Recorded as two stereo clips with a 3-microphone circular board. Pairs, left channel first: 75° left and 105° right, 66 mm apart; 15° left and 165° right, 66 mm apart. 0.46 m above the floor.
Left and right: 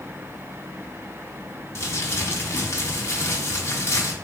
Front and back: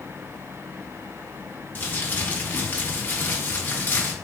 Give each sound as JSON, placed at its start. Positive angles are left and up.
{"t": 1.8, "sound": "crumpling", "azimuth_deg": 60, "distance_m": 0.7}